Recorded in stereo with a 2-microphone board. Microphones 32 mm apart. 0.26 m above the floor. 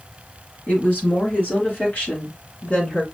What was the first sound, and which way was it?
A woman speaking, 60° left (ahead or behind).